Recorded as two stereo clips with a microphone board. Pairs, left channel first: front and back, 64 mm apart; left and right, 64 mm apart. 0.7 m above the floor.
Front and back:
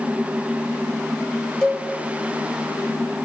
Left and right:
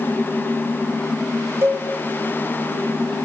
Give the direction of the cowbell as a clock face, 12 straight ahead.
3 o'clock.